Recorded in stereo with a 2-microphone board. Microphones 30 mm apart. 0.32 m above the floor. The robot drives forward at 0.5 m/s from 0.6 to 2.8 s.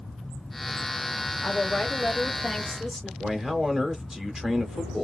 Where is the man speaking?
25° right (ahead or behind), 0.9 m.